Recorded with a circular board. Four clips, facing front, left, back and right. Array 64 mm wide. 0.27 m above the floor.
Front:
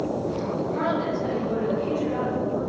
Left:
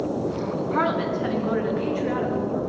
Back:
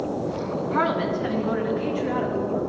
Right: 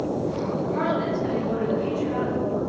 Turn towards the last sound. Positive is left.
turn(degrees=125)